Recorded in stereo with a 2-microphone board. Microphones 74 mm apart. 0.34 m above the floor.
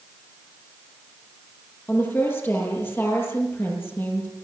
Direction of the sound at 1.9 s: 30° left (ahead or behind).